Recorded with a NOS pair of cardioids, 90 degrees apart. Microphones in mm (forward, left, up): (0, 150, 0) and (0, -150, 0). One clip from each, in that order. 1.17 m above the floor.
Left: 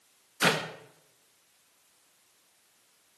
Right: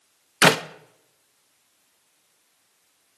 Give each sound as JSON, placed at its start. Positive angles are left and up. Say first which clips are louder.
{"t": 0.4, "sound": "a clap", "louder": "right 9 dB", "azimuth_deg": -55, "distance_m": 1.3}